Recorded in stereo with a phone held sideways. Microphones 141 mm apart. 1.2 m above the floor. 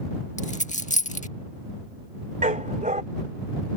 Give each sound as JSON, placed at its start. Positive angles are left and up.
{"t": 0.4, "sound": "a dropped coin", "side_deg": 60}
{"t": 2.4, "sound": "a dog barking", "side_deg": -60}